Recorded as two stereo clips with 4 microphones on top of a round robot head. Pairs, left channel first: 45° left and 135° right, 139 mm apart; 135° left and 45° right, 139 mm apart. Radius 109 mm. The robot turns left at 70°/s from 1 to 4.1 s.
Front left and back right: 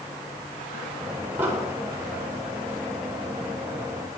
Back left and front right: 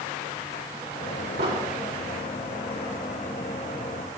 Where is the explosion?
60° right, 4 m; by 1.7 s 80° right, 4 m.